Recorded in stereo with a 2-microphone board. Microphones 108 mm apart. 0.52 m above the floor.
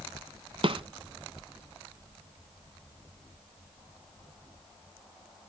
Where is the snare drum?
55° right (ahead or behind), 0.7 m.